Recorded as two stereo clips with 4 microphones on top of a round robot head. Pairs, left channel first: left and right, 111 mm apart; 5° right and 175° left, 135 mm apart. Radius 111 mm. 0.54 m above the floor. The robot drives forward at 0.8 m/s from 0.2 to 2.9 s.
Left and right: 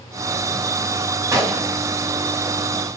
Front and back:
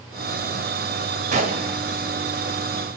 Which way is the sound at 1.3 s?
150° right.